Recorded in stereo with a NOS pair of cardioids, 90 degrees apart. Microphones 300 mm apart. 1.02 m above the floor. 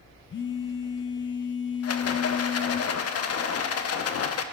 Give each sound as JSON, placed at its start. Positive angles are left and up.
{"t": 0.3, "sound": "a phone buzzing", "azimuth_deg": 40, "distance_m": 0.9}
{"t": 1.8, "sound": "a rattle", "azimuth_deg": 55, "distance_m": 0.9}